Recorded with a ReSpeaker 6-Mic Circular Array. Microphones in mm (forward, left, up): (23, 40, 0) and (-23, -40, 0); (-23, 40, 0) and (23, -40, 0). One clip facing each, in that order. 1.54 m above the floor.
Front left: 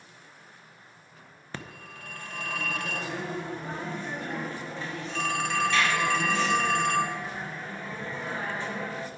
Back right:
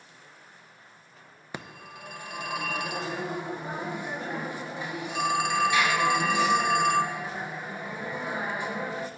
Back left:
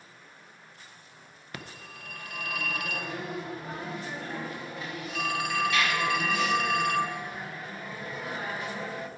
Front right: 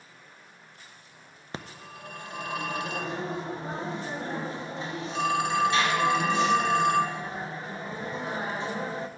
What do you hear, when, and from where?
1.5 s a phone ringing: 65° right, 0.6 m